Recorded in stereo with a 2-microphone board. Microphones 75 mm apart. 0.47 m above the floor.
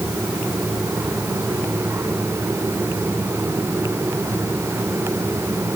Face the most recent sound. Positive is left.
No sound to turn to.